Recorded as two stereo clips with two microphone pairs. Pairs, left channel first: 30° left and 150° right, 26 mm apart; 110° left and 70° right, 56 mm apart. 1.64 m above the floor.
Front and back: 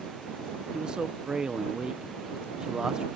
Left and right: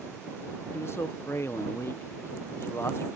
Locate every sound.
0.7 s a man speaking: 150° left